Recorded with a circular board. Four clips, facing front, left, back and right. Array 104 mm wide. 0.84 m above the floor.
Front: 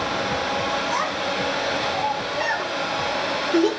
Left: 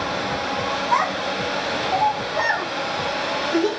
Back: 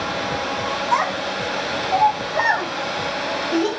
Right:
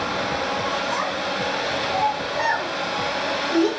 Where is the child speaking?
145° left, 3.5 m; by 3.7 s straight behind, 5 m.